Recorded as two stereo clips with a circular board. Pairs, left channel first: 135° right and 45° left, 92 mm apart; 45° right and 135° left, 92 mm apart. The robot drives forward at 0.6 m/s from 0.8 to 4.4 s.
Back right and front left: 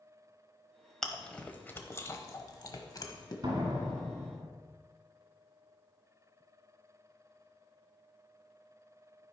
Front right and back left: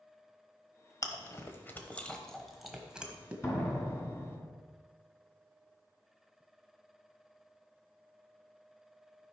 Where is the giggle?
No giggle in this recording.